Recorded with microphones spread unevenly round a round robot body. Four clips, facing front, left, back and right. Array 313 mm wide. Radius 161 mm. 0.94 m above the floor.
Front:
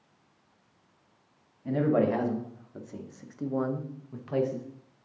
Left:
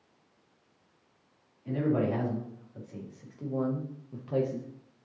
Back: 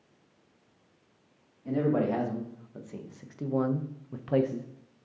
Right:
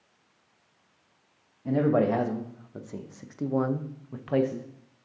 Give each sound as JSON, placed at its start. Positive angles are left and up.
{"t": 1.6, "sound": "a man speaking", "azimuth_deg": -70, "distance_m": 1.6}